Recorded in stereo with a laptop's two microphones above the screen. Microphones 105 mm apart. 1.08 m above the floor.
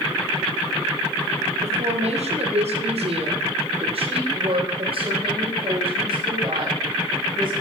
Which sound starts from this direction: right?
A woman speaking, at 1.6 s.